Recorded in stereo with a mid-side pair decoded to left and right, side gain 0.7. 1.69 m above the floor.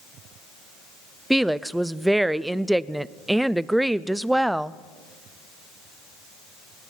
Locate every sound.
1.3 s a woman speaking: 5° right, 0.5 m